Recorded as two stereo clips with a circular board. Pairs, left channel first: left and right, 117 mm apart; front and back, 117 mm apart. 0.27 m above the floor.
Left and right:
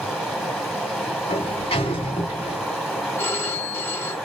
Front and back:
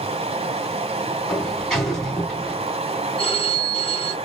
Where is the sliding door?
85° left, 2.5 m.